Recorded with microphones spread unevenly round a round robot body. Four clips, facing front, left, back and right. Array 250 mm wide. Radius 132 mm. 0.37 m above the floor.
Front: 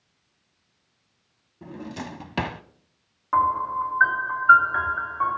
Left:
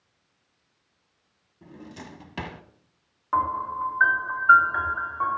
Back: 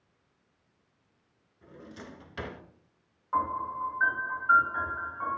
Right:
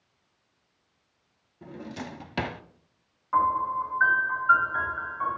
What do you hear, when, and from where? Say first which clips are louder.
1.6 s a drawer: right 4 dB, front 11 dB; 20° right, 0.8 m
3.3 s a piano: right 1 dB, front 8 dB; 30° left, 4.5 m